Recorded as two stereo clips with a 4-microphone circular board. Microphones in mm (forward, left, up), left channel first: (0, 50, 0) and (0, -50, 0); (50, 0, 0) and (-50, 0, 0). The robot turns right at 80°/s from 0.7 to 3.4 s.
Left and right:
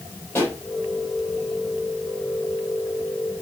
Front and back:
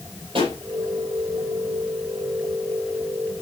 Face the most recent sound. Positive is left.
turn(degrees=15)